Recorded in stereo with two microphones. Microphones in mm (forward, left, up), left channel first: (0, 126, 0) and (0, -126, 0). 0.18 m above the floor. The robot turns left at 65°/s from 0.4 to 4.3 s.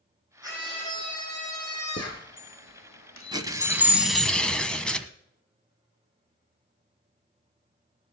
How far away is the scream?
About 8 m.